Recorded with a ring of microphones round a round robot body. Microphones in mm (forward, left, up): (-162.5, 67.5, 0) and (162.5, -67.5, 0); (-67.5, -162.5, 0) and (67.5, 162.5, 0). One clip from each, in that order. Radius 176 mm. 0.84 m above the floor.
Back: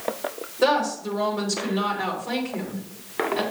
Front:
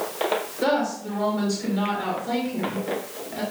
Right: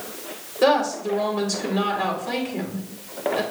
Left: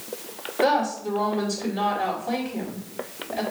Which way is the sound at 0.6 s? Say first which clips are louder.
Back 5 dB, right 3 dB; 140° right.